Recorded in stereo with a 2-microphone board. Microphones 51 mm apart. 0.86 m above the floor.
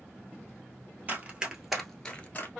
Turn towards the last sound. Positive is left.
turn(degrees=35)  # may be behind; listen again after turning